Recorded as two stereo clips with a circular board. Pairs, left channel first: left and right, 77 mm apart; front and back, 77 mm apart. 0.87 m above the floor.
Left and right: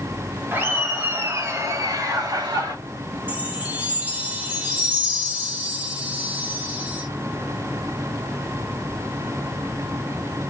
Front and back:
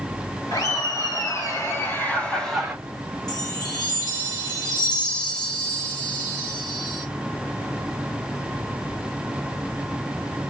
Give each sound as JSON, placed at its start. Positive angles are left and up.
{"t": 0.5, "sound": "laughter", "azimuth_deg": -25, "distance_m": 2.5}
{"t": 3.3, "sound": "a chime", "azimuth_deg": -25, "distance_m": 1.4}